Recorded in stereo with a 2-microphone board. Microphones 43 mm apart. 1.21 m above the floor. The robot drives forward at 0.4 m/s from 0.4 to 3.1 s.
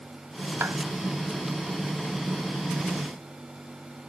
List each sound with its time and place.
0.6 s a clap: 80° right